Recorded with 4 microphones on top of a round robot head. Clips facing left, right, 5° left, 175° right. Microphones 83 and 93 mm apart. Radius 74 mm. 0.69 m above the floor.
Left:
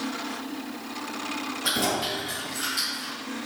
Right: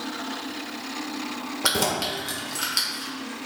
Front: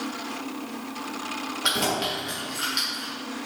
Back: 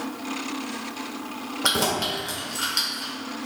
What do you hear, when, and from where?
1.6 s keys jangling: 115° right, 1.6 m